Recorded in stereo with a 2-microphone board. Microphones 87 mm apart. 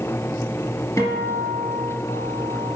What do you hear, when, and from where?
1.0 s a guitar: 40° left (ahead or behind), 1.2 m